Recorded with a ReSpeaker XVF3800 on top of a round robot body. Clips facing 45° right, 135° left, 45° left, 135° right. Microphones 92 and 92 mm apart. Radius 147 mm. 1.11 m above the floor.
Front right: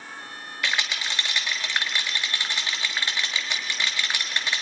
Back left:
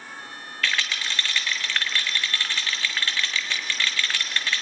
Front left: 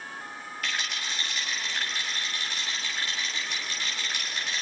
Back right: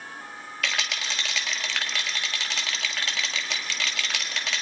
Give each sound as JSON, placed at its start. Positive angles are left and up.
{"t": 0.6, "sound": "a rattle", "azimuth_deg": -120, "distance_m": 1.3}